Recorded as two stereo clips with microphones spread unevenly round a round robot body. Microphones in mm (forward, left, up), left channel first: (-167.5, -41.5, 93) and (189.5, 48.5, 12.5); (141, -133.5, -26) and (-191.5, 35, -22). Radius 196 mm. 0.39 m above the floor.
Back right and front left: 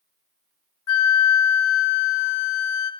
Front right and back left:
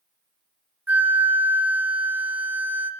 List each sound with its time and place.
0.9 s a flute: 120° right, 2.5 m